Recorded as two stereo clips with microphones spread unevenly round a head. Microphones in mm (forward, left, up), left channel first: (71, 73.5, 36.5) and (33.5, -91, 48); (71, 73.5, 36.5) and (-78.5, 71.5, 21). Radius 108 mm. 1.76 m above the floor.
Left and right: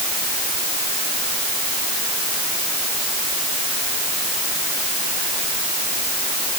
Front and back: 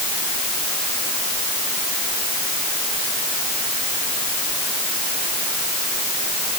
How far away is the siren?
I don't hear a siren.